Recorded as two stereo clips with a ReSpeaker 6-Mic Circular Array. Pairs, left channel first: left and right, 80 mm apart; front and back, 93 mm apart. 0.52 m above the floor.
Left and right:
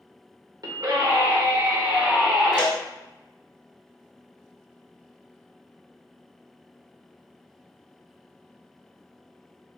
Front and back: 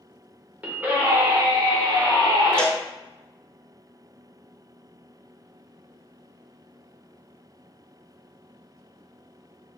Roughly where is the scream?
Right.